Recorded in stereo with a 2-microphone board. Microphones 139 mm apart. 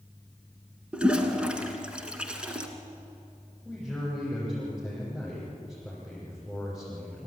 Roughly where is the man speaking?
Centre.